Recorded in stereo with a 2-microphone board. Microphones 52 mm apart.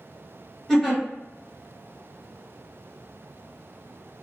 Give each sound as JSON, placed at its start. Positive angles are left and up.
{"t": 0.7, "sound": "a giggle", "side_deg": 10, "distance_m": 1.7}